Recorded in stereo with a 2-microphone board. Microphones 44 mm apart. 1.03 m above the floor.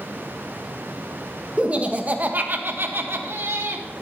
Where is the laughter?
25° right (ahead or behind), 1.2 m; by 3.9 s 65° right (ahead or behind), 1.4 m.